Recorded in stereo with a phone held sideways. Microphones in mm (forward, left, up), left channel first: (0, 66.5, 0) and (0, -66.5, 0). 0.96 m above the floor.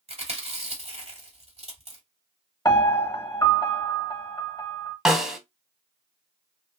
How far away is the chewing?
About 1.5 m.